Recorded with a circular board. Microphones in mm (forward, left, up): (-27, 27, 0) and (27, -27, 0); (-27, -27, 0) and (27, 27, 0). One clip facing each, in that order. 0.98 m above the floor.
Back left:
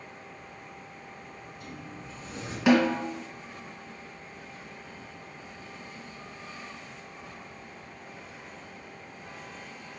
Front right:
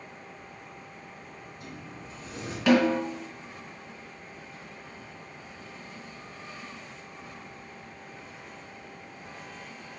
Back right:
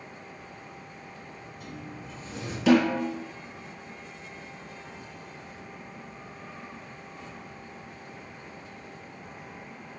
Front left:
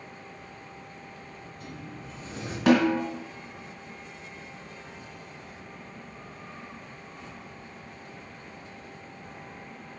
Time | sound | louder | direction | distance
1.3 | a sliding door | even, back right 1 dB | 10° left | 3.5 m
2.7 | a snare drum | even, even | 60° left | 2.0 m